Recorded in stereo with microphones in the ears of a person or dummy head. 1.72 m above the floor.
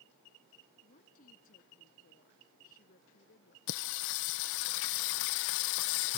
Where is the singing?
65° left (ahead or behind).